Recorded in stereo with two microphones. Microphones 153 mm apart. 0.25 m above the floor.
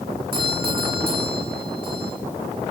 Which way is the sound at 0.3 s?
70° right (ahead or behind).